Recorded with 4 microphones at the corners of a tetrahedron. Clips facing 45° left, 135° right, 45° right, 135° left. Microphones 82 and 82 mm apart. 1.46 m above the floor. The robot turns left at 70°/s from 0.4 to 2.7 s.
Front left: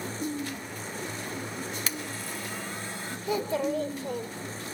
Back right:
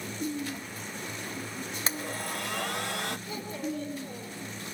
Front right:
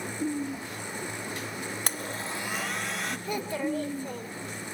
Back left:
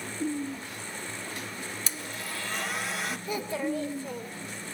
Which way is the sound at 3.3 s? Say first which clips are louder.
Front left 7 dB, front right 1 dB; 40° left.